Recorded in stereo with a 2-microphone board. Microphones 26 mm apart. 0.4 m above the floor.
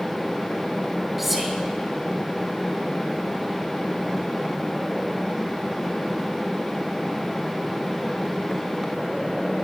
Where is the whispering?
5° right (ahead or behind), 1.4 m.